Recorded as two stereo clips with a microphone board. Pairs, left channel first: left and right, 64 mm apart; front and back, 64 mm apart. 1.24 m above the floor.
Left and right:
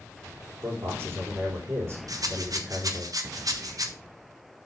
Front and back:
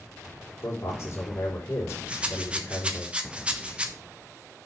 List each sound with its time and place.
0.6 s a man speaking: 40° right, 3.5 m
2.1 s a rattle: 110° right, 1.1 m